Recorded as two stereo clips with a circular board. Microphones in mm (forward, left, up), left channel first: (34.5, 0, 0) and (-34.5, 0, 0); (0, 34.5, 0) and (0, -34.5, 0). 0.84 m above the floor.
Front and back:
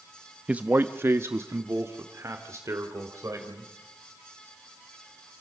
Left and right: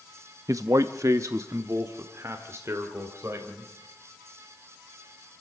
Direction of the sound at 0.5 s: 110° right.